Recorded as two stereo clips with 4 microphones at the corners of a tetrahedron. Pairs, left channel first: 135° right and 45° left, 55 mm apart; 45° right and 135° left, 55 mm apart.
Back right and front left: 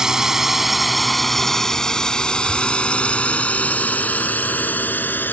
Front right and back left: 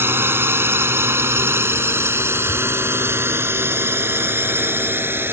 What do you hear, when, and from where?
0.0 s a drone: 120° left; by 5.3 s 175° left